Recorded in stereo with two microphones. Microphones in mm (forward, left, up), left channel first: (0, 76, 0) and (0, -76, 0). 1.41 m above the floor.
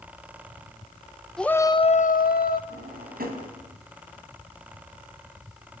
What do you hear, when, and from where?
1.4 s a shout: 5° left (ahead or behind), 0.9 m; by 2.6 s 75° left (ahead or behind), 1.0 m
2.7 s a drawer: 75° right (ahead or behind), 3.5 m